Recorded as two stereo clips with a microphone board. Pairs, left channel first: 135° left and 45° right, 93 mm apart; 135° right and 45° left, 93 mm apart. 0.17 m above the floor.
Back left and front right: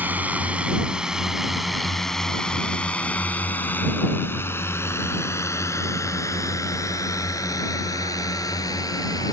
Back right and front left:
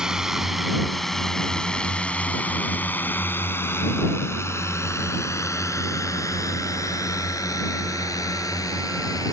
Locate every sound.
0.0 s a drone: 25° right; by 9.3 s straight behind